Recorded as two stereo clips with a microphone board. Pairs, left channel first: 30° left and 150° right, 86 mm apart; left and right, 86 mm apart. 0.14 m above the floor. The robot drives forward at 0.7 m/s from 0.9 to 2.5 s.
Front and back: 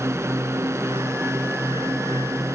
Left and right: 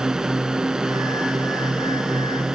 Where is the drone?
170° right.